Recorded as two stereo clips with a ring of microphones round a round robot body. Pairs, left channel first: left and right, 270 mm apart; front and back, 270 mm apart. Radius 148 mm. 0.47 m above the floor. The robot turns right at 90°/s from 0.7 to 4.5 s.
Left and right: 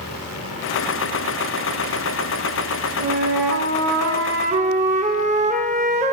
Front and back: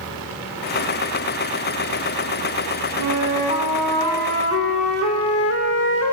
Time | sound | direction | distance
3.0 | a flute | 165° right | 0.7 m